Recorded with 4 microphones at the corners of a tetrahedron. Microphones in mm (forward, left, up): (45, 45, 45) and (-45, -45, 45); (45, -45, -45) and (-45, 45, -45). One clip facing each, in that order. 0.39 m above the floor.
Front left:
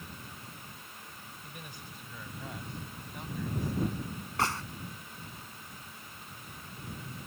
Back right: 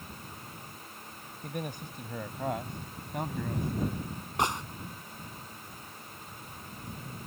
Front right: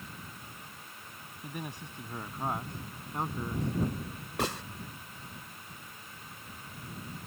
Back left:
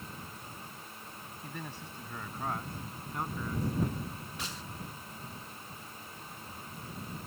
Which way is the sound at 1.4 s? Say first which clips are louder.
Back right 13 dB, front right 3 dB; 120° right.